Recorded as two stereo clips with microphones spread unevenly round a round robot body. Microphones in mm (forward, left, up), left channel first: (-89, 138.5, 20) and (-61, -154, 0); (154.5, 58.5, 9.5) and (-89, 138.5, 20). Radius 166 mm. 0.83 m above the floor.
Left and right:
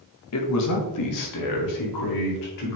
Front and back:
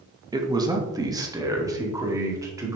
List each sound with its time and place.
0.3 s a man speaking: 90° left, 1.4 m; by 2.8 s 85° left, 3 m